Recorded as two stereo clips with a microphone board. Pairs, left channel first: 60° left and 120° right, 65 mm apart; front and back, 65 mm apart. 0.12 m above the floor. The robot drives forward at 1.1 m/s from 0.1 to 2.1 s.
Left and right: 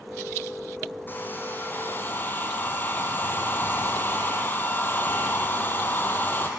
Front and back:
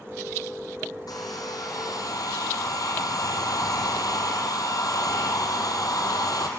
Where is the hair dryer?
5° left, 3.5 m.